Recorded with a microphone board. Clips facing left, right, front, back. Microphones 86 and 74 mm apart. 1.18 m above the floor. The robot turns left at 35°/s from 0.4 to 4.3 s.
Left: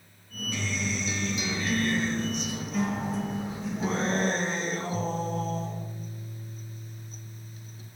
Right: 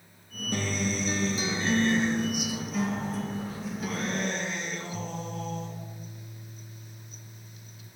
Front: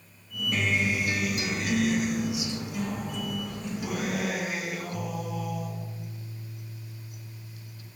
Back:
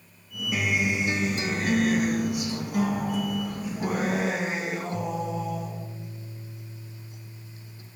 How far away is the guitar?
About 0.5 m.